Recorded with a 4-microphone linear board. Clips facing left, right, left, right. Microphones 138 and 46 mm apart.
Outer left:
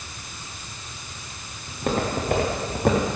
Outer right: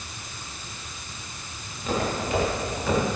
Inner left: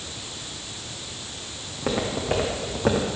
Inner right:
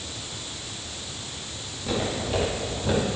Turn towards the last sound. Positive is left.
turn(degrees=55)  # may be behind; listen again after turning